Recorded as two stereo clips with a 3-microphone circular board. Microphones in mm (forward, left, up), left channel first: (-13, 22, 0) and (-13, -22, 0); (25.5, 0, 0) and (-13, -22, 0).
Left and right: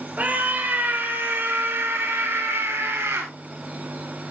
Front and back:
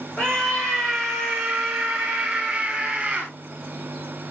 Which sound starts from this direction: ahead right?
A scream, at 0.2 s.